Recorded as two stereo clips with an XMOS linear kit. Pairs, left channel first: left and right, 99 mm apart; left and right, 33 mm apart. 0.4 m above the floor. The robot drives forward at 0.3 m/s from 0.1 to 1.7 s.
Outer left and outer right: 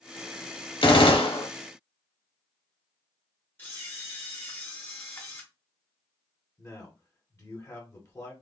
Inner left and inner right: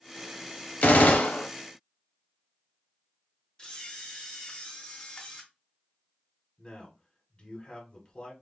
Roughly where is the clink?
No clink in this recording.